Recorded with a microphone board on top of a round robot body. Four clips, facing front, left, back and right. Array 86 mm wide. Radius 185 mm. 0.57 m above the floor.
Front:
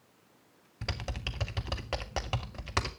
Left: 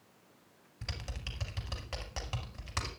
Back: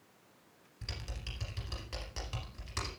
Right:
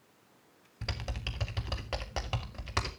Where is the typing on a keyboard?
25° right, 0.6 m.